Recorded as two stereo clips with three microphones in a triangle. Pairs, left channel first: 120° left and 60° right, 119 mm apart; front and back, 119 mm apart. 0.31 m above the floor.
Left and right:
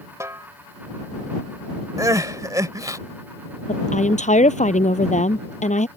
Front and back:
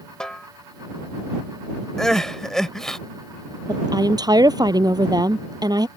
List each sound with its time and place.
0.2 s a snare drum: 75° right
2.0 s crying: 80° right
3.7 s a woman speaking: 125° left